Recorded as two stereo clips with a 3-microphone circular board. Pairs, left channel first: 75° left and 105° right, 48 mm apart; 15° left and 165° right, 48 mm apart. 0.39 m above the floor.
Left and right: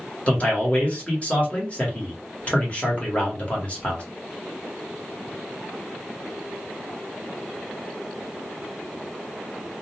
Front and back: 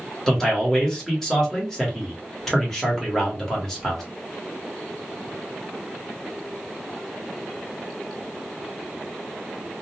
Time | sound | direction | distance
0.3 | a man speaking | 90° left | 1.2 m